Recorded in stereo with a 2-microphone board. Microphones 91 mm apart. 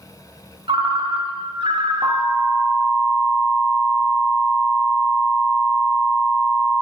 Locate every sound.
0.7 s a ringtone: 60° right (ahead or behind), 0.6 m
2.0 s an alarm: 50° right (ahead or behind), 1.7 m